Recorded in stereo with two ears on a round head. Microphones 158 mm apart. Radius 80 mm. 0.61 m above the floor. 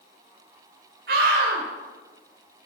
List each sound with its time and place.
1.1 s a scream: 60° right (ahead or behind), 2 m